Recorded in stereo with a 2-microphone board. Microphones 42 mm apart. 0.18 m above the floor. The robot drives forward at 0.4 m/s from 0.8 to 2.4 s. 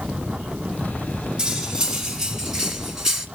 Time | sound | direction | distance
1.4 | cutlery clinking | 20° right (ahead or behind) | 1.0 m